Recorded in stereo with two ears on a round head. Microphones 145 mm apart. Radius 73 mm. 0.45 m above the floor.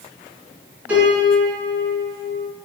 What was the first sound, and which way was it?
A piano, 10° right (ahead or behind).